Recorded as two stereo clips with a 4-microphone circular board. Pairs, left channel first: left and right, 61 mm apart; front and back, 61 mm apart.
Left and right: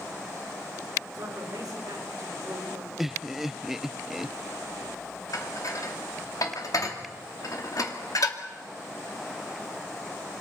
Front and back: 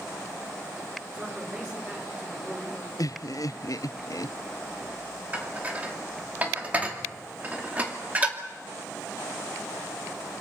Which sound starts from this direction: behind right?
A man speaking, at 1.1 s.